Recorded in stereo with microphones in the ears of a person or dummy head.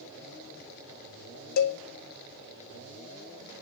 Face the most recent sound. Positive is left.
turn(degrees=55)  # may be behind; listen again after turning